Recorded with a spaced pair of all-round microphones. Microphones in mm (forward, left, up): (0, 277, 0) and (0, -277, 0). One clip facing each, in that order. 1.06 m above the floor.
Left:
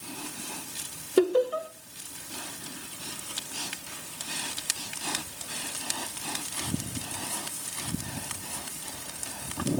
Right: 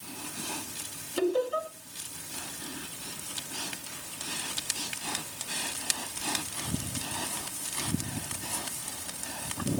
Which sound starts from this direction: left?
Laughter, at 1.2 s.